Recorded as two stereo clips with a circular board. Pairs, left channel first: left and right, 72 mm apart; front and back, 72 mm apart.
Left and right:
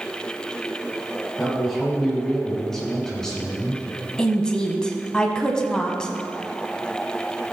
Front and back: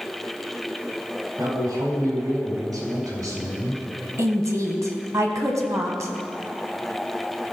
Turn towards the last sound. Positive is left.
turn(degrees=165)